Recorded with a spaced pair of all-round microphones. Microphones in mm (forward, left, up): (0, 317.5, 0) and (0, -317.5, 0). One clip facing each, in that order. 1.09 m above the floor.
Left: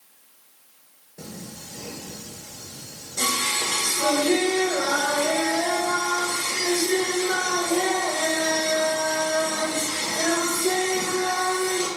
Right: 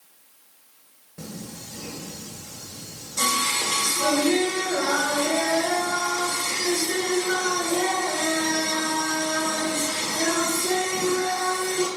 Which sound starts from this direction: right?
Singing, at 1.2 s.